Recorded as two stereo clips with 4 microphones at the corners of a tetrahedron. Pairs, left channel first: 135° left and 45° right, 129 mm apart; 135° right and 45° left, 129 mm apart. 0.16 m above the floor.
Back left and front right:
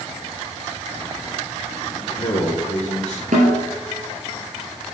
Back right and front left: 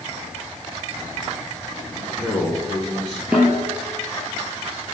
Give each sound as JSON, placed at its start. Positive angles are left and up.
{"t": 2.0, "sound": "a man speaking", "azimuth_deg": 135, "distance_m": 2.5}
{"t": 3.3, "sound": "a snare drum", "azimuth_deg": -30, "distance_m": 3.5}